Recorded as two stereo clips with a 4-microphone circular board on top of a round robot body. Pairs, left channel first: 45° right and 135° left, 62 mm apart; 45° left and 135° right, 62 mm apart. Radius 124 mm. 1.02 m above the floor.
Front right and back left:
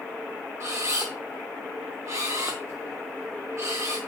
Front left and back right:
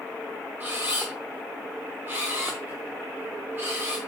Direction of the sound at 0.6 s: 170° left.